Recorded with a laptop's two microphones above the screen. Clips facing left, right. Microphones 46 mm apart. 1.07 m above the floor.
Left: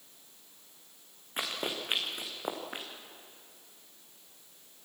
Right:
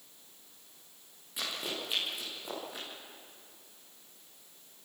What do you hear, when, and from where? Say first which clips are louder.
1.4 s running footsteps: left 2 dB; 45° left (ahead or behind), 4 m; by 2.9 s 60° left (ahead or behind), 4 m